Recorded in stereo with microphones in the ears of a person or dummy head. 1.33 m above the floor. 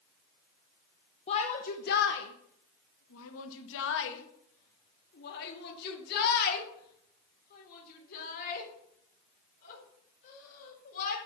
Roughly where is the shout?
Left.